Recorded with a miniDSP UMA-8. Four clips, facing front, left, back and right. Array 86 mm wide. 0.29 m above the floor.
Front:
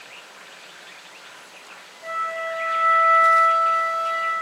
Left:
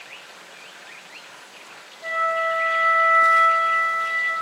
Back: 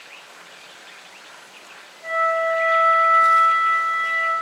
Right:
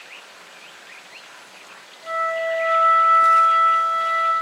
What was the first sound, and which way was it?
A flute, 95° left.